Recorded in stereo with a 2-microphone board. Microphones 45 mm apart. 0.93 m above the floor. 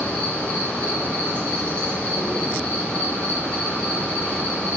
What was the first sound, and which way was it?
An insect, 35° left (ahead or behind).